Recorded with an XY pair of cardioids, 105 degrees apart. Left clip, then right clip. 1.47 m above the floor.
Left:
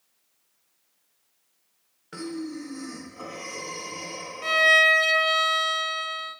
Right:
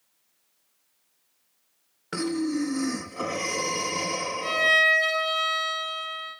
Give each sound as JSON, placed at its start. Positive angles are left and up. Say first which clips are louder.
{"t": 2.1, "sound": "breathing", "louder": "right 7 dB", "azimuth_deg": -60, "distance_m": 0.8}
{"t": 4.4, "sound": "a violin", "louder": "left 3 dB", "azimuth_deg": 30, "distance_m": 1.1}